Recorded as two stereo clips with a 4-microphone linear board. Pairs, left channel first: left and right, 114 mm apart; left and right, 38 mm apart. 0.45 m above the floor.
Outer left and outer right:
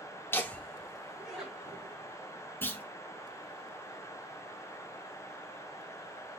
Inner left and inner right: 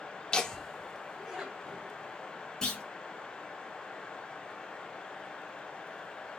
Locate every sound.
0.3 s laughter: 20° left (ahead or behind), 0.8 m; by 2.0 s 10° right (ahead or behind), 2 m
2.6 s a clunk: 20° left (ahead or behind), 1.6 m